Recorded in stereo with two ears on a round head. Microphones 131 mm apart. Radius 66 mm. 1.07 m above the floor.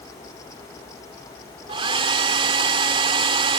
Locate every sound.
1.7 s a hair dryer: 40° right (ahead or behind)